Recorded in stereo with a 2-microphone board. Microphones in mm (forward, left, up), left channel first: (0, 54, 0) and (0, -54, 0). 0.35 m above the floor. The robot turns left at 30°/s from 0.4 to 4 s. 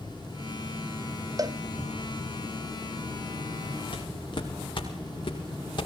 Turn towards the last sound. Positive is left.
turn(degrees=45)  # may be behind; listen again after turning